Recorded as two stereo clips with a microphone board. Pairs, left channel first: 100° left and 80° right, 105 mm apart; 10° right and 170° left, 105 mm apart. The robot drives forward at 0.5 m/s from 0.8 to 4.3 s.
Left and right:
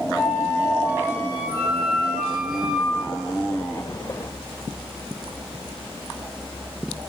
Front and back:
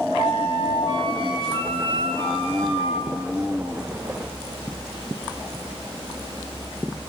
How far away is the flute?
About 1.0 m.